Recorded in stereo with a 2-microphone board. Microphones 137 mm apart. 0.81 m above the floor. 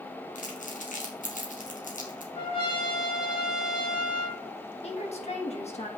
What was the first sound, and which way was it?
Crumpling, 65° left (ahead or behind).